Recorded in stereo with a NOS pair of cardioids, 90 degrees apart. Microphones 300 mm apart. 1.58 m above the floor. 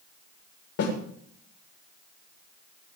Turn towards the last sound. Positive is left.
turn(degrees=60)